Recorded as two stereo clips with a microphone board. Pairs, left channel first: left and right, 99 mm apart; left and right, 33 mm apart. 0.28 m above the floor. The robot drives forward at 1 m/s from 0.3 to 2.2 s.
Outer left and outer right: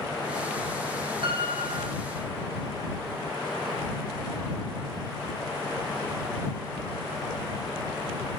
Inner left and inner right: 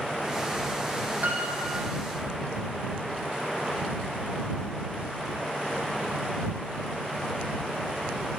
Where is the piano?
60° right (ahead or behind), 3 m; by 1.9 s 70° right (ahead or behind), 3 m.